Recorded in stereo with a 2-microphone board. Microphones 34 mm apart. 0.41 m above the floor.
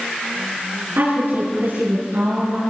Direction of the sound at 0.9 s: 70° right (ahead or behind).